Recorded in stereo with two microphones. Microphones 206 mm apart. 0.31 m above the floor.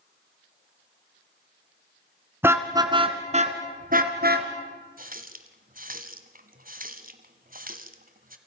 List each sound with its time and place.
2.4 s a car horn: 10° right (ahead or behind), 2 m; by 4.5 s 55° right (ahead or behind), 3 m
5.0 s a running tap: 45° right (ahead or behind), 1.7 m